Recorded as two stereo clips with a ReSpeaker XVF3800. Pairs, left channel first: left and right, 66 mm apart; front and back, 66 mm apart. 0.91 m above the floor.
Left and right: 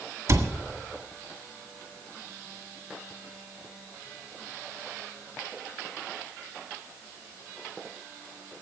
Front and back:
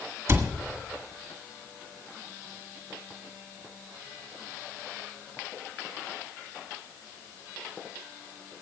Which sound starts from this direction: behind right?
A cupboard door, at 0.3 s.